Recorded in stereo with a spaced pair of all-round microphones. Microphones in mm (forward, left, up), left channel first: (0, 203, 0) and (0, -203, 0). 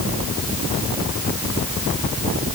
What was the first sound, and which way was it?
Only background noise.